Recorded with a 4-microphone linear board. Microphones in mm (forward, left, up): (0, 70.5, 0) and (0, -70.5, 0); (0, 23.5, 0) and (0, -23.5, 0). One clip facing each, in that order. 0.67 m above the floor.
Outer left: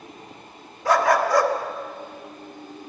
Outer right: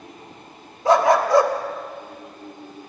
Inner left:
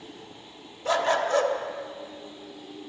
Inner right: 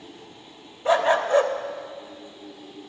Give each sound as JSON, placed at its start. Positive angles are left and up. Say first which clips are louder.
{"t": 0.8, "sound": "a dog barking", "louder": "outer right 3 dB, inner right 4 dB", "side_deg": -25, "distance_m": 0.7}